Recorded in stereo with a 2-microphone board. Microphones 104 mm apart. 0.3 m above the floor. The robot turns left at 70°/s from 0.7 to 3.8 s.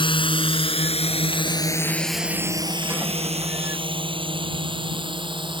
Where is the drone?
55° left (ahead or behind); by 5.6 s 50° right (ahead or behind).